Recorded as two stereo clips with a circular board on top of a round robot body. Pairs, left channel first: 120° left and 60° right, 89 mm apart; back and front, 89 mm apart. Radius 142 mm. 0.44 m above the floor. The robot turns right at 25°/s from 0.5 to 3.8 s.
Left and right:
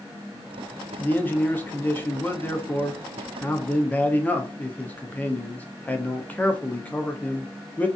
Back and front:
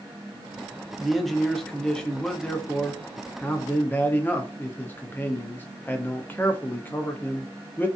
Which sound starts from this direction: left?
A man speaking, at 1.0 s.